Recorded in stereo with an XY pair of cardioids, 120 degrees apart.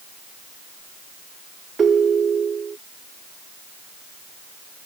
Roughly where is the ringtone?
Ahead right.